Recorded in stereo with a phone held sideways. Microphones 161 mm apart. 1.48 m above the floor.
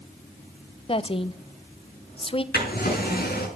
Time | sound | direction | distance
0.9 | a woman speaking | 35° left (ahead or behind) | 0.9 m
2.5 | a drawer | 75° left (ahead or behind) | 5.5 m